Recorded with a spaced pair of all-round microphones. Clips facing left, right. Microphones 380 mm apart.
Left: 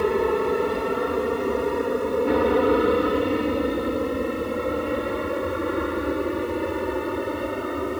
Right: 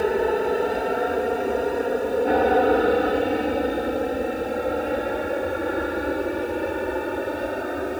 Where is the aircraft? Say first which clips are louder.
Even; 10° left (ahead or behind); by 8.0 s 5° left (ahead or behind).